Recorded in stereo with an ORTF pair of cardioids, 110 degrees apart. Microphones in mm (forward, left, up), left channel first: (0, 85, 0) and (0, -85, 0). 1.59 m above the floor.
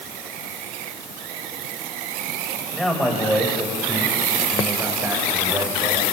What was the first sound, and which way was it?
A man speaking, straight ahead.